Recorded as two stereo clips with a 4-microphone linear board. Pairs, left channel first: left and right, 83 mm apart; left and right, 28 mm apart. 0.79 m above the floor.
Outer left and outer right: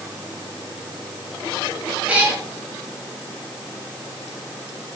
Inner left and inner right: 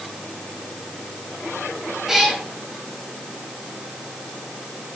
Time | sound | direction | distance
2.1 | a cat meowing | 20° right (ahead or behind) | 4 m